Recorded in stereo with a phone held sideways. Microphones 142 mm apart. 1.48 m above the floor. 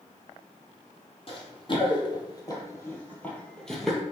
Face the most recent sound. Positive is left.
turn(degrees=0)  # may be behind; listen again after turning